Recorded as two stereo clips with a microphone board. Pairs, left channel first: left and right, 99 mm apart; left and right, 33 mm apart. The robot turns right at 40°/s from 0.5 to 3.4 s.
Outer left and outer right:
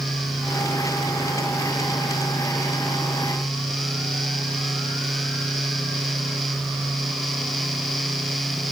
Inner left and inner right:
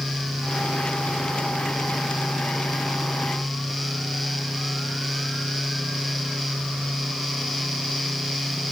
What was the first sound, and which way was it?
Only background noise.